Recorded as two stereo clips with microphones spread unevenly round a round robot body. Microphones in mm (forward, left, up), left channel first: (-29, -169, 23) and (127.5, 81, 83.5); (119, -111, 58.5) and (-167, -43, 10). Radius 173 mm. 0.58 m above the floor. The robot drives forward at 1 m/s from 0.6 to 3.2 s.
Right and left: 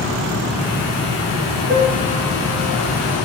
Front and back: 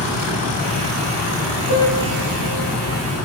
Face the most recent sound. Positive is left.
turn(degrees=-5)